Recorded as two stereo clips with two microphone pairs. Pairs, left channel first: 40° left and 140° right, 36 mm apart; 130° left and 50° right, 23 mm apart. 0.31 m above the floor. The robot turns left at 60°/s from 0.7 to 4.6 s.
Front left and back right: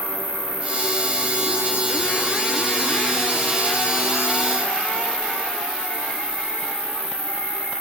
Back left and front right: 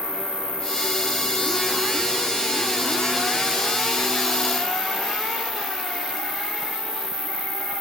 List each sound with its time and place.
0.0 s an insect: 10° right, 3.5 m; by 7.8 s 115° left, 3.5 m